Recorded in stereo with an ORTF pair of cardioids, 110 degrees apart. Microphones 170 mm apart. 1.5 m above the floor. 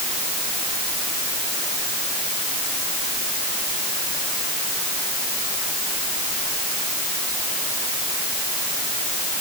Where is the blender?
No blender in this recording.